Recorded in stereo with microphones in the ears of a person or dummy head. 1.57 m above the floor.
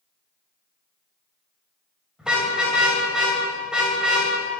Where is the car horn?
5° right (ahead or behind), 3.5 m.